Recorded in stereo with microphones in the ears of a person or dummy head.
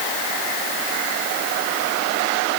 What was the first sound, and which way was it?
Only background noise.